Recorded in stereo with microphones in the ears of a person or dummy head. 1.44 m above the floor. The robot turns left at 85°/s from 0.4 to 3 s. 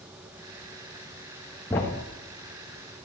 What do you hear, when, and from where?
1.7 s a thud: 10° left (ahead or behind), 0.7 m; by 2.1 s 20° left (ahead or behind), 0.7 m